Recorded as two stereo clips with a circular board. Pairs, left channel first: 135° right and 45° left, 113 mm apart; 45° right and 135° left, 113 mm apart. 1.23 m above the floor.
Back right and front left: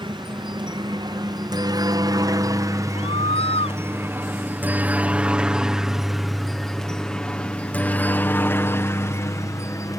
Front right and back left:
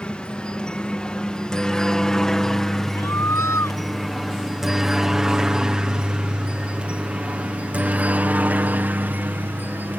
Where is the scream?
110° right.